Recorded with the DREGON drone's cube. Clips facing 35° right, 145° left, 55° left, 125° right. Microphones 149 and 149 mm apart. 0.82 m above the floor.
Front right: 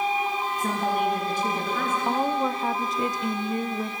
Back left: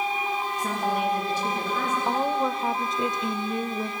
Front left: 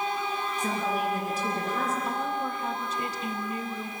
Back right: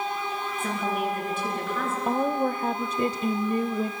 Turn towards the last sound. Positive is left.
turn(degrees=-120)